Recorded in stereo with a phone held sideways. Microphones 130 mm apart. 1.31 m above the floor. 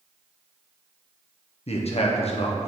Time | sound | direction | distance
1.7 | a man speaking | 55° left (ahead or behind) | 0.8 m